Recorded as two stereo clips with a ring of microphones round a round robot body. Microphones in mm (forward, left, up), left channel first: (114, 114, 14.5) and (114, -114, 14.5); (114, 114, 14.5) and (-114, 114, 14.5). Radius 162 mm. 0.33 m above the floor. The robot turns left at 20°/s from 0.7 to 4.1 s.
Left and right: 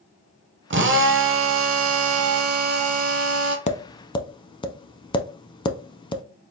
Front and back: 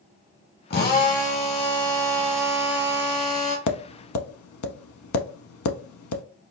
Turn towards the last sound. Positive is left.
turn(degrees=20)